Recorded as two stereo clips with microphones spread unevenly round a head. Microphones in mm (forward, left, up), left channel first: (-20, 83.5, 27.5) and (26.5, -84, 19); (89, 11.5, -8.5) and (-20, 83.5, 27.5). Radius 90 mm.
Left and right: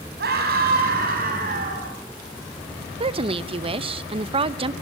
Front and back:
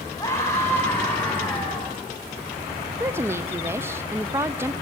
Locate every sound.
0.2 s a scream: 110° right, 9 m; by 1.9 s 120° right, 9 m
3.0 s a woman speaking: 130° right, 0.9 m